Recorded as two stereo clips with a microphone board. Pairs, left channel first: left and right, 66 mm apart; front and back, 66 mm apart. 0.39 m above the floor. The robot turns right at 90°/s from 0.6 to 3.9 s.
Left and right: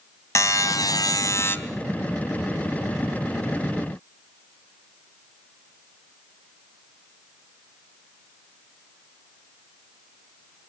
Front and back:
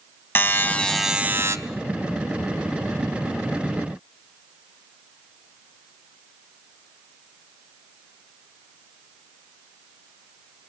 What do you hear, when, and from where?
0.3 s a buzzer: 55° left, 1.8 m; by 1.6 s 140° left, 1.8 m